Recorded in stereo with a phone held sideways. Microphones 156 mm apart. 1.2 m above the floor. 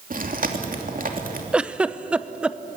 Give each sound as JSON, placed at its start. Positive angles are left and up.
{"t": 0.1, "sound": "chewing", "side_deg": -60, "distance_m": 2.5}
{"t": 1.5, "sound": "a giggle", "side_deg": -5, "distance_m": 0.7}